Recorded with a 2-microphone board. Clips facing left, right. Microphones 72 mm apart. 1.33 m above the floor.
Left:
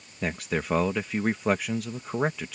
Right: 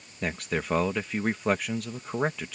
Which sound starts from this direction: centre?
A man speaking, at 0.2 s.